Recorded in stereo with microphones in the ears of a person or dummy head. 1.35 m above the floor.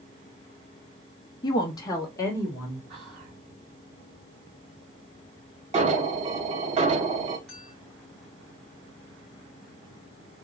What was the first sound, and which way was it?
A woman speaking, 25° left (ahead or behind).